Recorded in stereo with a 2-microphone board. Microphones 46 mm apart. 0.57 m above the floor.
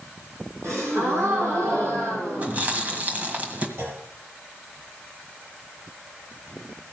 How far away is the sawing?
I don't hear sawing.